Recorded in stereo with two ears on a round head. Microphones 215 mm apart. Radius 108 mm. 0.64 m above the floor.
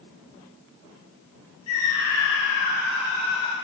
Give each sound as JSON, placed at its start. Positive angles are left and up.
{"t": 1.7, "sound": "a scream", "side_deg": 75, "distance_m": 5.0}